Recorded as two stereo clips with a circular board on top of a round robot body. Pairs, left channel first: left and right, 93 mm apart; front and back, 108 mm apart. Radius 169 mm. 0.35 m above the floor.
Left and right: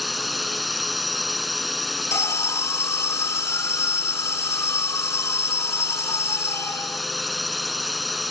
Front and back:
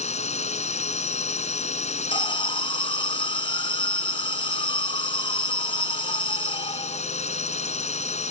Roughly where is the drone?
Ahead.